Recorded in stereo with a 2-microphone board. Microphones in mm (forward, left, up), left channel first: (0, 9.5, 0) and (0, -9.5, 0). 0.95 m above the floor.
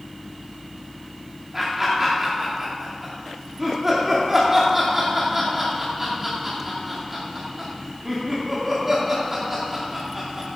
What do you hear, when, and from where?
1.5 s laughter: 15° right (ahead or behind), 2.5 m